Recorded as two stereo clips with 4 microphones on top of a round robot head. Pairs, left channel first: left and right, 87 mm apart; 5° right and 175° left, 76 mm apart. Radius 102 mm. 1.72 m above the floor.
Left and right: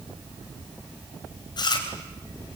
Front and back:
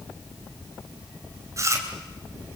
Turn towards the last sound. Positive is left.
turn(degrees=125)